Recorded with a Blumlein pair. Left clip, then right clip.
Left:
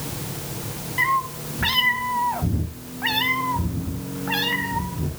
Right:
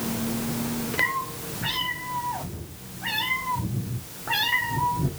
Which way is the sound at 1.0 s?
65° left.